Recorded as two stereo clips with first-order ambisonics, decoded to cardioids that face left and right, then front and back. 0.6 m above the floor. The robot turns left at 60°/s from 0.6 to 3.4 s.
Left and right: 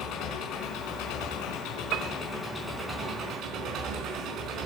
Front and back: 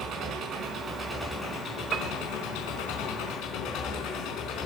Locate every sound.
0.0 s an engine running: 125° left, 4.5 m; by 4.7 s 40° right, 4.5 m
1.9 s a piano: 120° right, 0.6 m; by 2.2 s 135° right, 0.6 m